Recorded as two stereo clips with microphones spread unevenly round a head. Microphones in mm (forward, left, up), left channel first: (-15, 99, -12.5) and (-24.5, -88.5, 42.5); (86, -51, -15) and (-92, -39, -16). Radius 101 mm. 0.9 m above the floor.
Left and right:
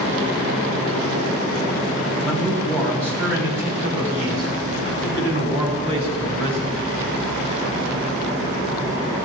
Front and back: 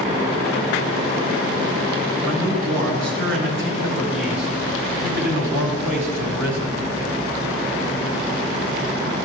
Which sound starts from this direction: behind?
A man speaking, at 2.2 s.